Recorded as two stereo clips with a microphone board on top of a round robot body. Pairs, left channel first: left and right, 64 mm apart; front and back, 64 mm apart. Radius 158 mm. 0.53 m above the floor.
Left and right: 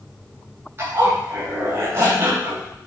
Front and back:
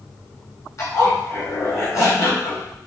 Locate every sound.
0.8 s a zipper: 40° right, 3 m